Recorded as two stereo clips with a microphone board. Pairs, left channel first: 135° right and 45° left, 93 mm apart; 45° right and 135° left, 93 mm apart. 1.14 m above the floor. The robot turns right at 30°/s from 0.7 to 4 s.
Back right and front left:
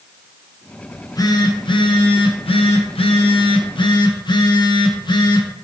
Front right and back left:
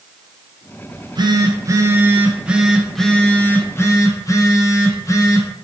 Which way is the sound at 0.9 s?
165° left.